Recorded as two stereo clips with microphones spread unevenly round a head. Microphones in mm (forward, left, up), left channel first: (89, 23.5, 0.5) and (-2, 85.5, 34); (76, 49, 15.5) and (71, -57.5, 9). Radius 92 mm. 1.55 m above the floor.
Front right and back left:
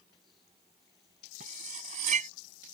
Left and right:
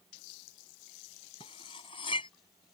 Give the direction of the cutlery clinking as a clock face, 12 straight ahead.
7 o'clock.